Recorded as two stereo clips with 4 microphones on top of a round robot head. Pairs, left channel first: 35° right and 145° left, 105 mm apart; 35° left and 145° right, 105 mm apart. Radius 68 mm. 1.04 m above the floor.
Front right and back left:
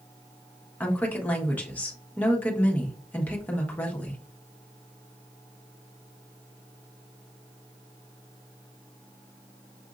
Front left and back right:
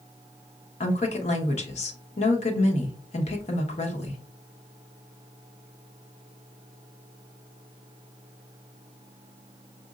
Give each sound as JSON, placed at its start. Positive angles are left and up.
{"t": 0.8, "sound": "a woman speaking", "azimuth_deg": 40, "distance_m": 1.2}